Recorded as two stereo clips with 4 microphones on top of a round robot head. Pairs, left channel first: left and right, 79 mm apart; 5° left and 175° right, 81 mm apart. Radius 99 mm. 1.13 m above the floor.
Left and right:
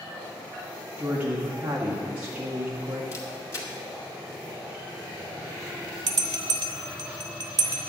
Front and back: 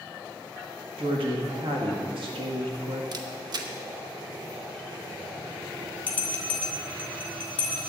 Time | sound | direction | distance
1.0 | a woman speaking | 165° right | 1.7 m
3.1 | a camera shutter | 150° left | 0.9 m
6.1 | a bell | 70° right | 0.5 m